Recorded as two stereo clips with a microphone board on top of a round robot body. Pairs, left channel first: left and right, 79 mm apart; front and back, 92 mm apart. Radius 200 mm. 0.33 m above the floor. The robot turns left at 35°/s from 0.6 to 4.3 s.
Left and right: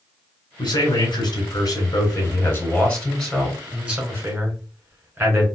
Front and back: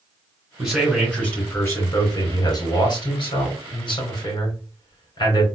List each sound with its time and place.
0.6 s a man speaking: 95° left, 2.5 m; by 5.5 s 35° right, 2.5 m